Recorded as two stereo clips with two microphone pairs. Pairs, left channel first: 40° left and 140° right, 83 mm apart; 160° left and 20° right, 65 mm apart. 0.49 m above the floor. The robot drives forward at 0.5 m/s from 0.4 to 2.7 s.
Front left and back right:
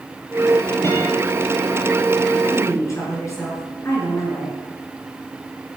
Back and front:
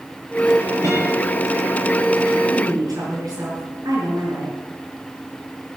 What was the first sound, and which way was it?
A guitar, 15° right.